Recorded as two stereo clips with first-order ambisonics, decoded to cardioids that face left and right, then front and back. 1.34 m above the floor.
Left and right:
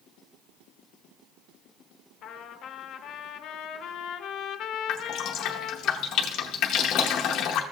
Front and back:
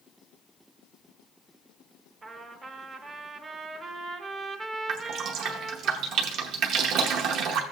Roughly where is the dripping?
Behind left.